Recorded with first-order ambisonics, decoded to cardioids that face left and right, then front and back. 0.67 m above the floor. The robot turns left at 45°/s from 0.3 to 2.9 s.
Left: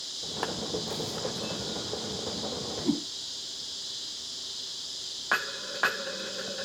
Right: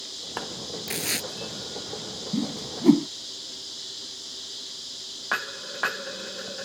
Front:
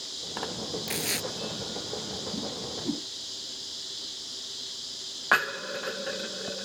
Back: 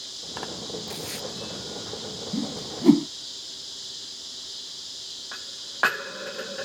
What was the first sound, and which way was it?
Tearing paper, 55° right.